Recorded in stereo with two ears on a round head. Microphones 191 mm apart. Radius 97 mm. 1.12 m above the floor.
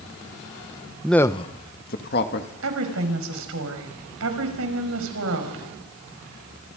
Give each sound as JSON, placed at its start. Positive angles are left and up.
{"t": 1.0, "sound": "a man speaking", "side_deg": -5, "distance_m": 0.8}
{"t": 2.6, "sound": "a woman speaking", "side_deg": -80, "distance_m": 5.5}